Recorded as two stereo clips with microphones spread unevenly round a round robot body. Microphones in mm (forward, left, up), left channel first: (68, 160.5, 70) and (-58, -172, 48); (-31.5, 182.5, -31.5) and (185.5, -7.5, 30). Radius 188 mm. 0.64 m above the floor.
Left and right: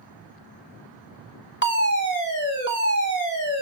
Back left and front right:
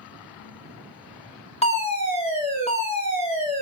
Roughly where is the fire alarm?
Left.